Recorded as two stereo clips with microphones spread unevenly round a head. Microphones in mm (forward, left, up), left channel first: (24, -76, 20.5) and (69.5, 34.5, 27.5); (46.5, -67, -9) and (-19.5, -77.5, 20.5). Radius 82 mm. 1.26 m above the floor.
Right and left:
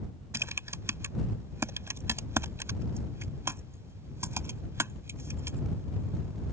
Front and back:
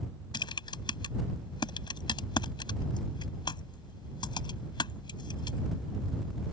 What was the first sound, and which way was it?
Typing on a keyboard, straight ahead.